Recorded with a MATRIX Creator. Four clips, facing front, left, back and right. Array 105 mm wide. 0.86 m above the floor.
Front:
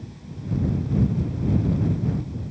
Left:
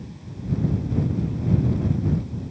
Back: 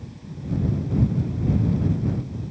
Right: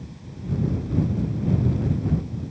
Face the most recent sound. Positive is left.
No sound to turn to.